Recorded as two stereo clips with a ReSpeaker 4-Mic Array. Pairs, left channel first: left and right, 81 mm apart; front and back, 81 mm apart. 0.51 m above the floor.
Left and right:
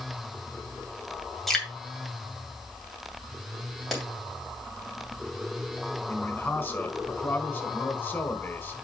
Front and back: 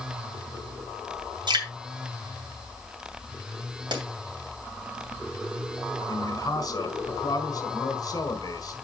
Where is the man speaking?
30° left, 1.8 m.